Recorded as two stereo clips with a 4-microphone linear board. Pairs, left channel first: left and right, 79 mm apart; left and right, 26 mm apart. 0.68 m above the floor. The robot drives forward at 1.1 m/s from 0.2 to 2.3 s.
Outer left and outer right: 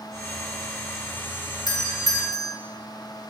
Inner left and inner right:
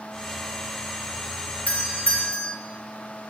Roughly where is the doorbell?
Left.